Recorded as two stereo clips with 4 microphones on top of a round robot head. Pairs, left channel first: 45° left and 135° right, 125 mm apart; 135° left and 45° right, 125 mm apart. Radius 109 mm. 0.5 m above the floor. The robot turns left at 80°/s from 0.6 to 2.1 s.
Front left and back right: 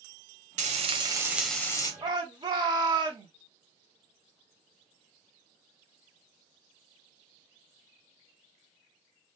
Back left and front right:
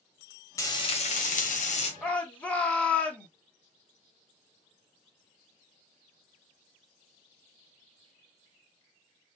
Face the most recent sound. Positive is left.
turn(degrees=-150)